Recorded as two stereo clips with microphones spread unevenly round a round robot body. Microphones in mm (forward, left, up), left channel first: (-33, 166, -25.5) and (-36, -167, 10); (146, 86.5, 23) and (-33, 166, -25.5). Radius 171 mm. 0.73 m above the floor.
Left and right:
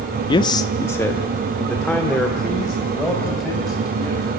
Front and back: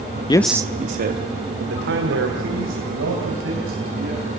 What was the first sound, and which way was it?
A man speaking, 45° left.